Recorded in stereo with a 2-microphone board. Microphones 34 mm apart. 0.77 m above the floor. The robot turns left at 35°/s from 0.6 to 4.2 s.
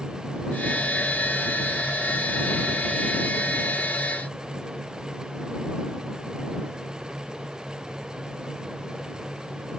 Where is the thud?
No thud in this recording.